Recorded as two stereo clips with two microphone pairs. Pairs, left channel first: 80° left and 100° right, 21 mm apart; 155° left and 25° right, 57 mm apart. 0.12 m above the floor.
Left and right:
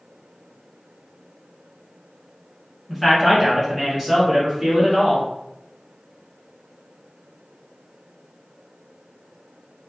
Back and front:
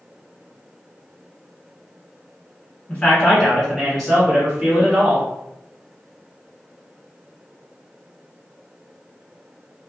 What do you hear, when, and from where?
2.9 s a man speaking: 170° left, 1.7 m; by 5.3 s 70° right, 1.8 m